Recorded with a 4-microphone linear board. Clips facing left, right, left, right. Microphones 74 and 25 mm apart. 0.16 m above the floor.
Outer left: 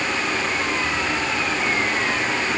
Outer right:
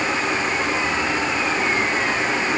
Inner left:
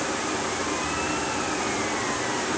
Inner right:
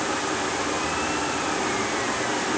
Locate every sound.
Only background noise.